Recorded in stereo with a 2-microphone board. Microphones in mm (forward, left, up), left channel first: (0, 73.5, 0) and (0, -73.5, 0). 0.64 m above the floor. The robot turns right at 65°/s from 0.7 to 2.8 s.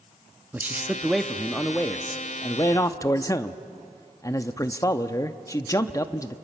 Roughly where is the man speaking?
Centre.